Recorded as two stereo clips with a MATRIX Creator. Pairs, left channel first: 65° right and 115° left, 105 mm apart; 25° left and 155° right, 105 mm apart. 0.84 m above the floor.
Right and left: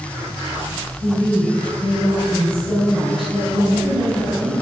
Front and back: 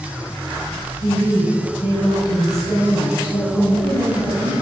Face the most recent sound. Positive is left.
turn(degrees=80)